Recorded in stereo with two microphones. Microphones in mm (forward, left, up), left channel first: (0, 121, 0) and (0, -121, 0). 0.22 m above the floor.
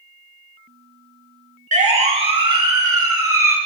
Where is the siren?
30° right (ahead or behind), 3.5 m; by 3.6 s 10° right (ahead or behind), 5 m.